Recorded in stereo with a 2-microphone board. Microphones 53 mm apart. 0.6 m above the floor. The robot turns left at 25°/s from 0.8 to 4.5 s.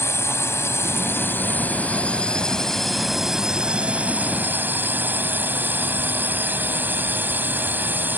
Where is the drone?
55° left; by 8.2 s 35° right.